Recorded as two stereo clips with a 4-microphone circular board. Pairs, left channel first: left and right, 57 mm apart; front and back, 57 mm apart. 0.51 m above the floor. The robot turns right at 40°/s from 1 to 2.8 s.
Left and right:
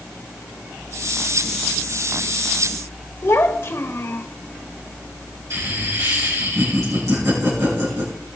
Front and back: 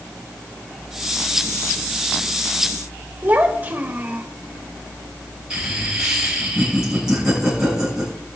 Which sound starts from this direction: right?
Laughter, at 5.5 s.